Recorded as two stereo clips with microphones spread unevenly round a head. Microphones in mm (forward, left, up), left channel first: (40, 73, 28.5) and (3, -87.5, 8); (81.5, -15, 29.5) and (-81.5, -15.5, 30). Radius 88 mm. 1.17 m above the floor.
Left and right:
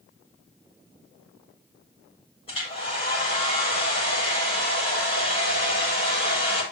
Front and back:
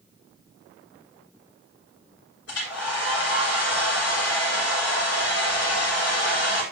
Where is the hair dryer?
20° left, 7.5 m.